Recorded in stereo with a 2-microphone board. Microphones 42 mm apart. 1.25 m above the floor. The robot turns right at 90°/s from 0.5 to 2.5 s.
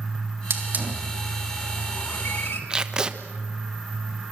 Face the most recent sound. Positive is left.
turn(degrees=-20)  # may be behind; listen again after turning